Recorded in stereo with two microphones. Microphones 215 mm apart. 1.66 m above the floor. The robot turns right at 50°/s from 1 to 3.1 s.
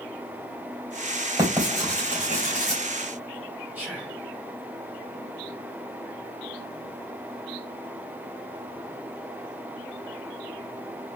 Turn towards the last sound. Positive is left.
turn(degrees=-5)  # may be behind; listen again after turning